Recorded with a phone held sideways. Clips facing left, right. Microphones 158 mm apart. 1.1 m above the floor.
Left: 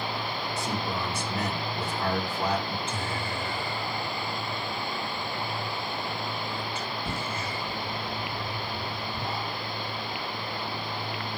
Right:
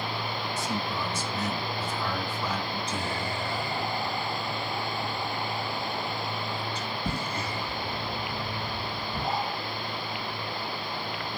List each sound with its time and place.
0.6 s a man speaking: 60° left (ahead or behind), 3.5 m
2.9 s whispering: 40° right (ahead or behind), 6 m